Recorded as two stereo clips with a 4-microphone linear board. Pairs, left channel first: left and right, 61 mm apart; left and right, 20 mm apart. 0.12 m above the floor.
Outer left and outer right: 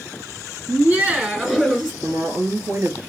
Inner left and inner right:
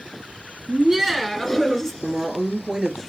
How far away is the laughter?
About 1.3 m.